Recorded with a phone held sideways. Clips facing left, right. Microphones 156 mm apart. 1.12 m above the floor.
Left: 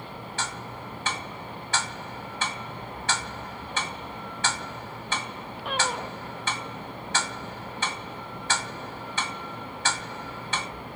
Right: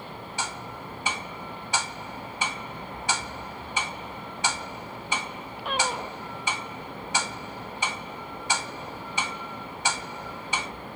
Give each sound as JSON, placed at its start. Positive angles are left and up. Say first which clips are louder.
{"t": 0.4, "sound": "ticking", "louder": "right 1 dB", "side_deg": -15, "distance_m": 2.0}